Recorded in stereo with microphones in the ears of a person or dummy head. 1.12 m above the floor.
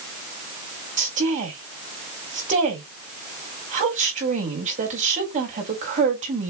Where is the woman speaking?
40° right (ahead or behind), 4 m.